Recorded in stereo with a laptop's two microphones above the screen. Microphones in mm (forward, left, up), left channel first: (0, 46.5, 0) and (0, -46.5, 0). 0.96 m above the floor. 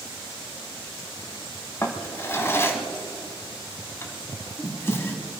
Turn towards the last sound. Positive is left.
turn(degrees=25)  # may be behind; listen again after turning